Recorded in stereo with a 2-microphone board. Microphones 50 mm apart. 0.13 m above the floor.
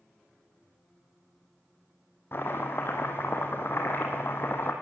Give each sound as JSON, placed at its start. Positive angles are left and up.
{"t": 2.3, "sound": "chopping", "side_deg": 45, "distance_m": 2.5}